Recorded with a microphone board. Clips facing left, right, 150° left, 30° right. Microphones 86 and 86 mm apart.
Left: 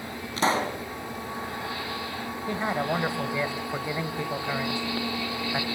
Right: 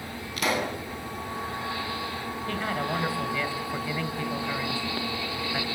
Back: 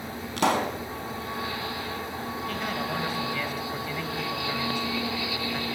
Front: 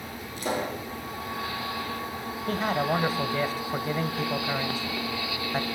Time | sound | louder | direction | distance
0.4 | a pop | left 3 dB, back 5 dB | 145° left | 3.5 m
2.5 | a man speaking | left 3 dB, front 7 dB | 20° left | 2 m